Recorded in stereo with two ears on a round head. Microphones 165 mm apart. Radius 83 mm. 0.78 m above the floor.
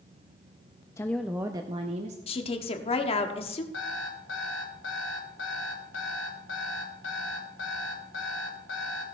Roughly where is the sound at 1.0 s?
Centre.